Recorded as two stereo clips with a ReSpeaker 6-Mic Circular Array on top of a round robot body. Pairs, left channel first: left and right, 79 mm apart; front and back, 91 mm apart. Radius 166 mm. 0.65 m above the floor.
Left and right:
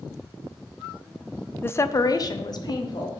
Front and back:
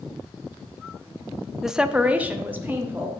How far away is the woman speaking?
About 0.6 m.